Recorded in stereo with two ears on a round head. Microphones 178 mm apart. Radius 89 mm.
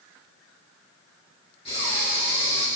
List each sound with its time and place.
1.6 s breathing: 30° left (ahead or behind), 3 m